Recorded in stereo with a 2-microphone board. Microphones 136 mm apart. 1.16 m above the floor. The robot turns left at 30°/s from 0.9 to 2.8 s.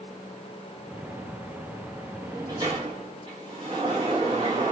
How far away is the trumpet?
I don't hear a trumpet.